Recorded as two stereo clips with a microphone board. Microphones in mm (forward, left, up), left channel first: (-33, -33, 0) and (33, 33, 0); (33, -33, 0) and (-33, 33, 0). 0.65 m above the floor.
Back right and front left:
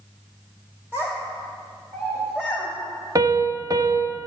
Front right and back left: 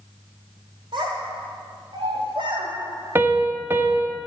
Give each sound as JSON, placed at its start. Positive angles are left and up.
{"t": 0.9, "sound": "a child speaking", "azimuth_deg": 110, "distance_m": 2.0}
{"t": 3.1, "sound": "a piano", "azimuth_deg": 80, "distance_m": 0.8}